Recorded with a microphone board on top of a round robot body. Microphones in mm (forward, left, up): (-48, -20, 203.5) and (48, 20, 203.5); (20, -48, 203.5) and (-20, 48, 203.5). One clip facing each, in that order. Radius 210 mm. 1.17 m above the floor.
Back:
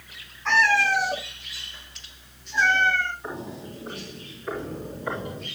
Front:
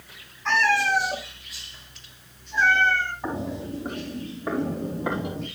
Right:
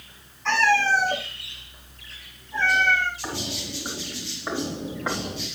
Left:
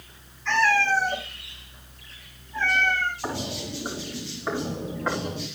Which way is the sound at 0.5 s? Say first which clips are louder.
Back 1 dB, right 1 dB; 70° right.